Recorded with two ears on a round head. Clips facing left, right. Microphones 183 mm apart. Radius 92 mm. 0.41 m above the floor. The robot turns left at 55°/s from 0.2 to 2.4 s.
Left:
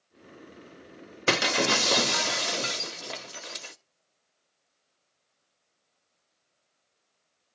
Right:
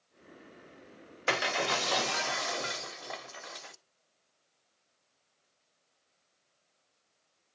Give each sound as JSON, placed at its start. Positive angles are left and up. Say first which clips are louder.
{"t": 1.3, "sound": "breaking glass", "louder": "left 6 dB", "azimuth_deg": 110, "distance_m": 1.0}